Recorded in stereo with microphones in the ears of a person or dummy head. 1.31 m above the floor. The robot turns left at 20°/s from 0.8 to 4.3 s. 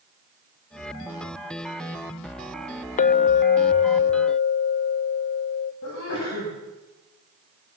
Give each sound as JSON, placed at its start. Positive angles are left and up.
{"t": 3.0, "sound": "a clink", "side_deg": 40, "distance_m": 0.6}
{"t": 5.8, "sound": "a sneeze", "side_deg": 65, "distance_m": 8.0}